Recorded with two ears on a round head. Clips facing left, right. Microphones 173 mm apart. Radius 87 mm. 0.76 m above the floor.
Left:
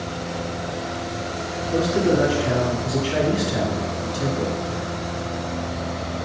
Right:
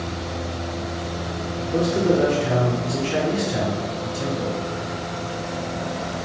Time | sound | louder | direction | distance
1.7 | a man speaking | even | 45° left (ahead or behind) | 1.8 m